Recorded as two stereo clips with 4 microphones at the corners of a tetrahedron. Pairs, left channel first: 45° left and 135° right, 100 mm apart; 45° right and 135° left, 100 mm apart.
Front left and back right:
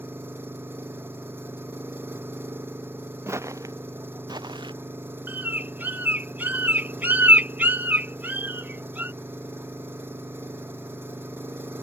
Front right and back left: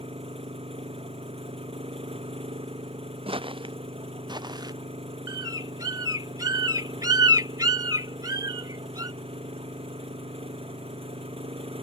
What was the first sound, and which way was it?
An engine running, 155° left.